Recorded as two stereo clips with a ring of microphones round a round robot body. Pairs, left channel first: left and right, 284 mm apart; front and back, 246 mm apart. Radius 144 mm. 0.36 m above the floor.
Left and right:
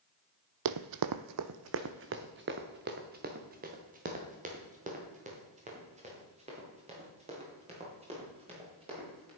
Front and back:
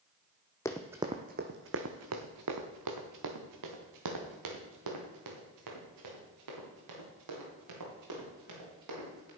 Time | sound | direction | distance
0.7 | running footsteps | 80° right | 0.6 m